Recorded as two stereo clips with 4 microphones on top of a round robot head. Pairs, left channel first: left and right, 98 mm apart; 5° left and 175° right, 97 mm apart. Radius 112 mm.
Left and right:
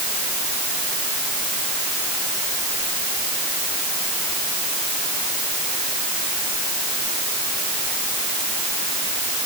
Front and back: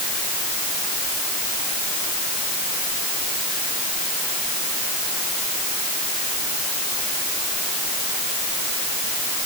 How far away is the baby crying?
No baby crying in this recording.